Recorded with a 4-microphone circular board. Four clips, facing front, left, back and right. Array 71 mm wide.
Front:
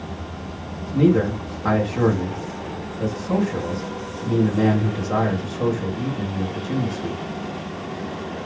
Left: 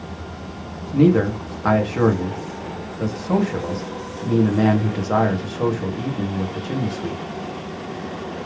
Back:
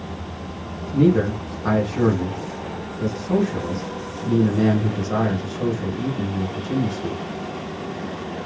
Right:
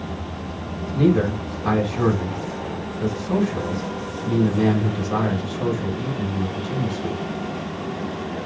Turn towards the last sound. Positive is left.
turn(degrees=85)